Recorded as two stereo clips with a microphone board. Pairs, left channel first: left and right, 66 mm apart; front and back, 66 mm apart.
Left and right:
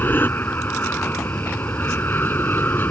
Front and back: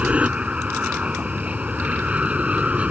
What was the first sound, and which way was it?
An aircraft, 125° left.